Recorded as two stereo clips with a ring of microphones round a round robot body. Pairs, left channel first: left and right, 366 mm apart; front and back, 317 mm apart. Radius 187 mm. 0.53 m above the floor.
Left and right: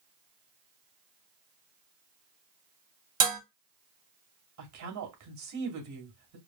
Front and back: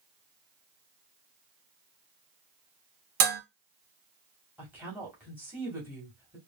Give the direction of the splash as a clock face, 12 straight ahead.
I don't hear a splash.